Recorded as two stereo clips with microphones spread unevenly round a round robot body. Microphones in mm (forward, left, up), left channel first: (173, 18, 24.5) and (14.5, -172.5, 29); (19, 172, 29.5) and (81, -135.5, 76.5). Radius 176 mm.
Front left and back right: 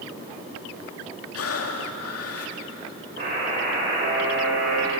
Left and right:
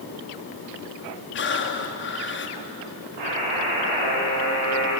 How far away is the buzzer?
About 8 m.